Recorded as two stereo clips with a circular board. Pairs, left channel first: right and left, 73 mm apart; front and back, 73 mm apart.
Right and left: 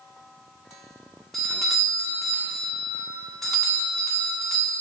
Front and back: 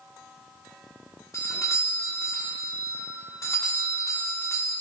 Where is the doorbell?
5° right, 1.6 m.